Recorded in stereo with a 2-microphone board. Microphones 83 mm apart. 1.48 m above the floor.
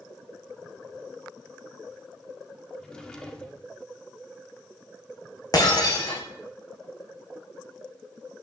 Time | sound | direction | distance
2.8 | a drawer | 10° left (ahead or behind) | 1.9 m
5.5 | breaking glass | 50° left (ahead or behind) | 4.5 m